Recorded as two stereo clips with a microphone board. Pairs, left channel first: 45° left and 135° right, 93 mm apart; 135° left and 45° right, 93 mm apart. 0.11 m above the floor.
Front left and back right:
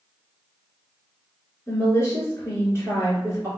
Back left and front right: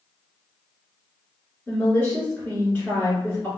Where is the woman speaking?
75° left, 1.8 m.